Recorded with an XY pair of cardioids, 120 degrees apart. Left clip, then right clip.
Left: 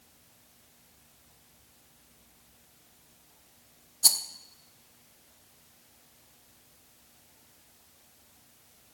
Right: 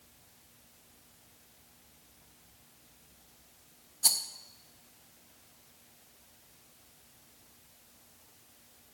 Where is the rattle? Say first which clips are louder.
Left 4 dB; 30° left, 0.5 m.